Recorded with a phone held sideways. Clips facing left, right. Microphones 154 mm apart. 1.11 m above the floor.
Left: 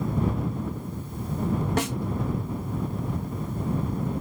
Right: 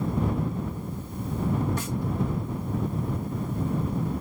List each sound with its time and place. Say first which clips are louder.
1.8 s a snare drum: left 5 dB; 75° left (ahead or behind)